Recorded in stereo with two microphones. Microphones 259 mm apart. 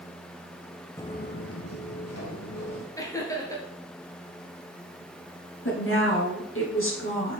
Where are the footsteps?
10° left (ahead or behind), 0.7 m; by 2.9 s 85° left, 2.5 m.